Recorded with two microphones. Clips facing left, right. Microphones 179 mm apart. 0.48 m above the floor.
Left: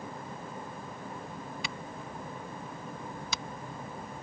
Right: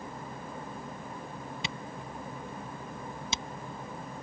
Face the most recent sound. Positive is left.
turn(degrees=-25)  # may be behind; listen again after turning